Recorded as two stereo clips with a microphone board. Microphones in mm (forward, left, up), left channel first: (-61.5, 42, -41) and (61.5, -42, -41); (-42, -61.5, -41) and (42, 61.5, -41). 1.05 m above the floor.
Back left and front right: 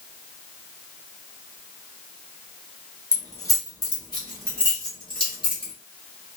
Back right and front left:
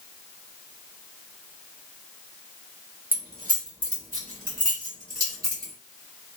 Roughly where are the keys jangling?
Left.